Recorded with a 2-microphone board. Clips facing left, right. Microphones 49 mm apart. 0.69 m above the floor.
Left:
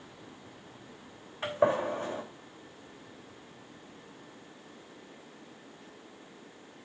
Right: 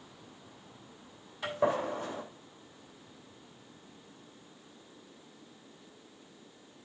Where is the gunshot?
35° left (ahead or behind), 3 m.